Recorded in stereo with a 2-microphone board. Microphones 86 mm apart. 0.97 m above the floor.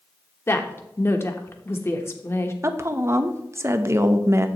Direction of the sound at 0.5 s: 30° left (ahead or behind).